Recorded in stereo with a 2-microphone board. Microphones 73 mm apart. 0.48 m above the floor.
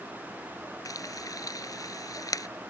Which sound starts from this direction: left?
Frying, at 0.8 s.